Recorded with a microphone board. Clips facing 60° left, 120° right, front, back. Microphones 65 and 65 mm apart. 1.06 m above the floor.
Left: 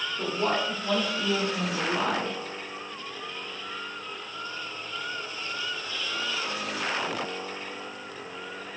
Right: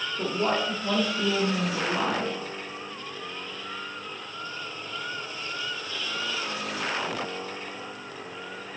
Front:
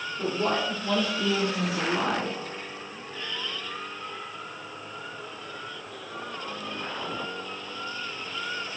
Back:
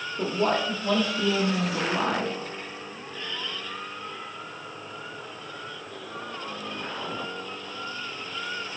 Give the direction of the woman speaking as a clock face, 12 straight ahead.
7 o'clock.